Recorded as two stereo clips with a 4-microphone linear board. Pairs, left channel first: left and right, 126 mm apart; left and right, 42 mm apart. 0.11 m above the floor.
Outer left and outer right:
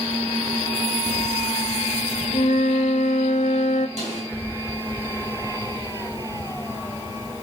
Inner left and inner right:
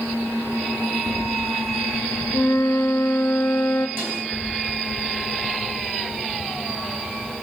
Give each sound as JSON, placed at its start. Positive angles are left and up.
{"t": 2.3, "sound": "a flute", "side_deg": 70, "distance_m": 0.5}
{"t": 4.0, "sound": "a snare drum", "side_deg": -60, "distance_m": 6.0}